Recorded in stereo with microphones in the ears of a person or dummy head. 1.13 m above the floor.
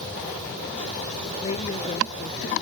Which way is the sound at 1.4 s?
35° left (ahead or behind).